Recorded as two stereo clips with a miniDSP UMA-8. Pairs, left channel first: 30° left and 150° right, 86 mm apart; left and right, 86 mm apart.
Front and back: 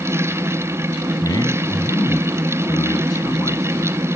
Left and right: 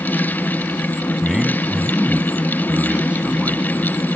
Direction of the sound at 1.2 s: 5° right.